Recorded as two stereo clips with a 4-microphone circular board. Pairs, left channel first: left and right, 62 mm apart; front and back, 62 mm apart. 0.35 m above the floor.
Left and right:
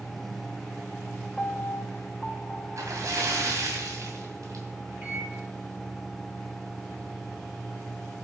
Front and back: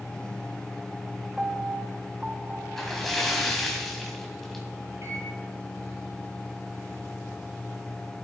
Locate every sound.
1.4 s a piano: 135° left, 0.6 m
2.8 s a splash: 85° right, 2.5 m
5.0 s a microwave: 155° right, 7 m